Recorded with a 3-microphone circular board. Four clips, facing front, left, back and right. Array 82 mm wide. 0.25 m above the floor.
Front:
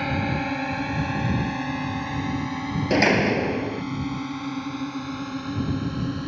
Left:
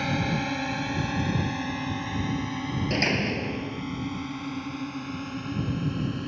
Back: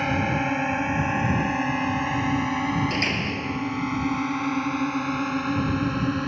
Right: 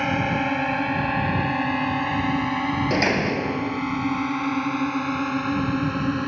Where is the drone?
110° right; by 6.3 s 120° right.